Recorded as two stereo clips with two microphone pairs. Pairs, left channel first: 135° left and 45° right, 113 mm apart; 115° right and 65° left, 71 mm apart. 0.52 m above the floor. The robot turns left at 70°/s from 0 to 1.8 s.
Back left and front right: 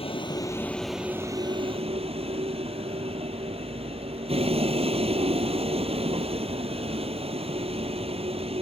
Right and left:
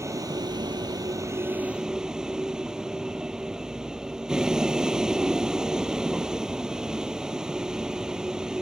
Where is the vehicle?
110° left; by 8.6 s 15° right.